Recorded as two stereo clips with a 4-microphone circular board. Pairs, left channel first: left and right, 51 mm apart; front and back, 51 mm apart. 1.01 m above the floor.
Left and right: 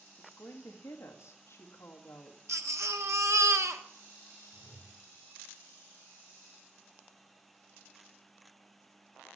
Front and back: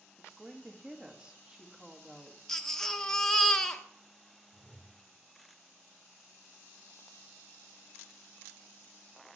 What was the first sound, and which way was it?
A woman speaking, 105° left.